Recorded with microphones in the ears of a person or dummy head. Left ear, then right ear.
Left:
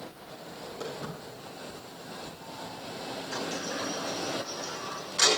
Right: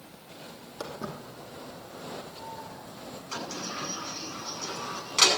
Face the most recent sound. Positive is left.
turn(degrees=-85)